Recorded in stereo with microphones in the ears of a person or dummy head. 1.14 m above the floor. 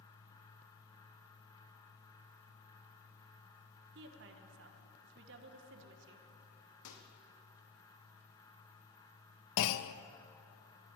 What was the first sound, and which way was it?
A woman speaking, 55° right (ahead or behind).